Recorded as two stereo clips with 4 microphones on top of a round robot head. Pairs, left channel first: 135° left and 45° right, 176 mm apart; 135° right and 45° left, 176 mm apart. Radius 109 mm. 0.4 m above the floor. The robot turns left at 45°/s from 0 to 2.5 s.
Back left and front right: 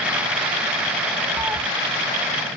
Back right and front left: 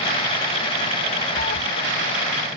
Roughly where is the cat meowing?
Behind right.